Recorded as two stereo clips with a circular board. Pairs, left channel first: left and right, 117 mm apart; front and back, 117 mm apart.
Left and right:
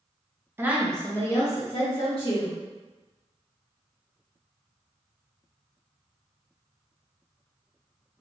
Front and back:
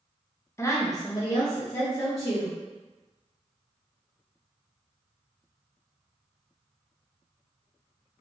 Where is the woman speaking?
40° right, 0.5 m; by 2.6 s 60° left, 1.3 m.